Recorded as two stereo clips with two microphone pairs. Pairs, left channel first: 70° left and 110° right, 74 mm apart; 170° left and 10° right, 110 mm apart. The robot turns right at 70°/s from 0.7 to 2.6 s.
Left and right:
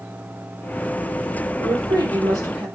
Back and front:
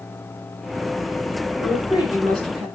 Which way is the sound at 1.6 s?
115° right.